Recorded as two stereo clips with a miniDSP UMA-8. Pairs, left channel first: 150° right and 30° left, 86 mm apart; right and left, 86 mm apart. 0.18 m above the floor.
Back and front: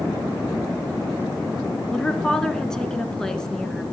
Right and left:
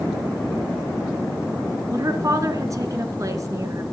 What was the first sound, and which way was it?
A woman speaking, 130° left.